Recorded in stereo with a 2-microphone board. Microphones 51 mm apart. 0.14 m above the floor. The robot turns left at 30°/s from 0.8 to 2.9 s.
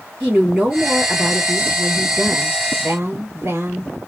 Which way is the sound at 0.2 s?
25° right.